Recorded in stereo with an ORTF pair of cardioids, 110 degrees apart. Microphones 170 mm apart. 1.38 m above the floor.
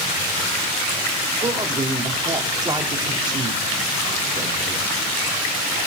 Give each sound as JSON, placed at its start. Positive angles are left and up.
{"t": 1.4, "sound": "a man speaking", "azimuth_deg": -25, "distance_m": 3.5}